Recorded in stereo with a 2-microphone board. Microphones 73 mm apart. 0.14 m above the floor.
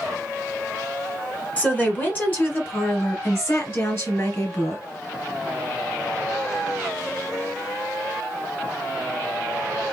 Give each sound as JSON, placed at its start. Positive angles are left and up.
{"t": 1.6, "sound": "a woman speaking", "side_deg": 20, "distance_m": 1.5}